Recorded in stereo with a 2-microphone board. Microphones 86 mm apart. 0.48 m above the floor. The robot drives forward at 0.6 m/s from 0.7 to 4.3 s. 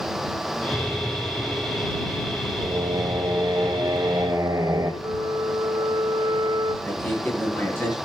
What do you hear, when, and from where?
2.6 s singing: 50° right (ahead or behind), 1.7 m; by 4.9 s 35° right (ahead or behind), 2.5 m
5.0 s a flute: 55° right (ahead or behind), 1.3 m
6.8 s a man speaking: 25° left (ahead or behind), 9 m